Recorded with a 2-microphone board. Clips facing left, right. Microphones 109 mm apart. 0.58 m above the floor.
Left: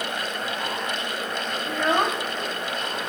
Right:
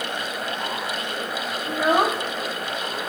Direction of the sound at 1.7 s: 15° right (ahead or behind).